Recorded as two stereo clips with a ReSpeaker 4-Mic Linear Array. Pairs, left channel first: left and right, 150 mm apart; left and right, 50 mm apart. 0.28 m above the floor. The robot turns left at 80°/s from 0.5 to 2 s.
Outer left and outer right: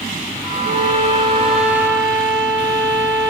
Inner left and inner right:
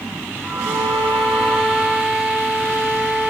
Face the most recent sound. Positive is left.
turn(degrees=-30)